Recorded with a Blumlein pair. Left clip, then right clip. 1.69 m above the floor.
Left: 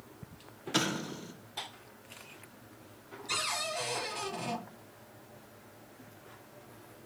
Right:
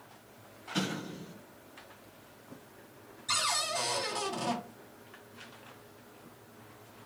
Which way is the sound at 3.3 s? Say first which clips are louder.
Right 3 dB; 30° right.